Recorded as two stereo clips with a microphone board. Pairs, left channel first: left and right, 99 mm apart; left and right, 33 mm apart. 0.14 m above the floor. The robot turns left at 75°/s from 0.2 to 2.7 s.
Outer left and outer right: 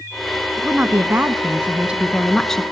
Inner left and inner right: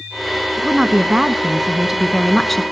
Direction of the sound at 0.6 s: 15° right (ahead or behind).